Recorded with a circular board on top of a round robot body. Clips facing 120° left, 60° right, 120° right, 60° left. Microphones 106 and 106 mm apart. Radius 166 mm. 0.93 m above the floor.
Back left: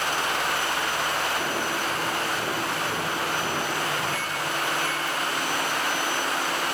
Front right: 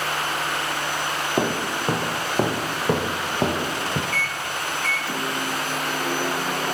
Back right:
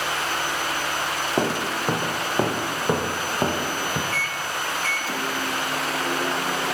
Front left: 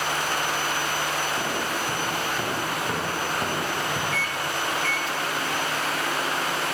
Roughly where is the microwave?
Right.